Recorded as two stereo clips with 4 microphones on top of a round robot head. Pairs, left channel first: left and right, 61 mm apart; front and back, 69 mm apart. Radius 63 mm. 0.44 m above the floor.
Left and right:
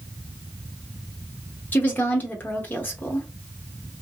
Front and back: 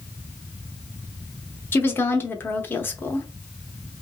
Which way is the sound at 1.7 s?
45° left.